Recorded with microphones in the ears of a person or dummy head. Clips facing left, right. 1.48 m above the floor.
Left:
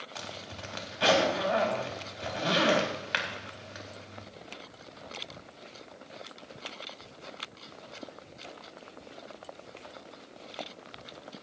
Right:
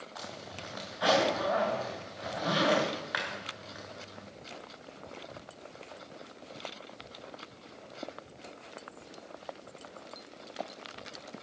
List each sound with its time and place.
0.1 s a zipper: 45° left (ahead or behind), 2.5 m